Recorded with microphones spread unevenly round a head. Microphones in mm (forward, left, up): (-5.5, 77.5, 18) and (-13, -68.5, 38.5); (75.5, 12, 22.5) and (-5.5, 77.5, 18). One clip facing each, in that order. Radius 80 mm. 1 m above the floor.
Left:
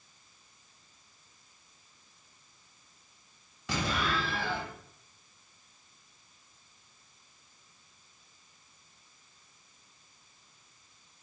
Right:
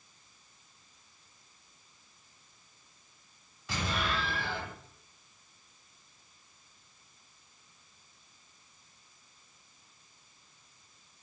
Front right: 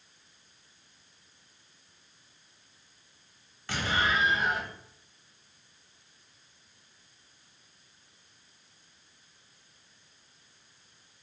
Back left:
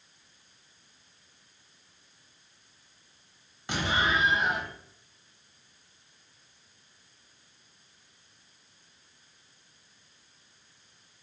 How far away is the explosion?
About 1.2 m.